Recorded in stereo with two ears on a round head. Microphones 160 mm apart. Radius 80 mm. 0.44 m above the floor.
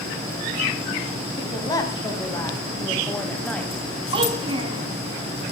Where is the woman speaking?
25° left (ahead or behind), 3.5 m; by 3.9 s 5° left (ahead or behind), 3 m.